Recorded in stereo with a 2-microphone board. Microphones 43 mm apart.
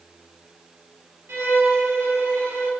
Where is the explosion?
I don't hear an explosion.